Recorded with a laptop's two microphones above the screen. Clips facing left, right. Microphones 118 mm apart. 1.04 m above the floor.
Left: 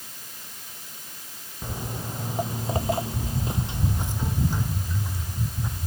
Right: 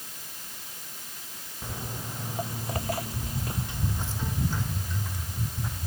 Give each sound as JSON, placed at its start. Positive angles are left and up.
{"t": 1.6, "sound": "footsteps", "side_deg": 15}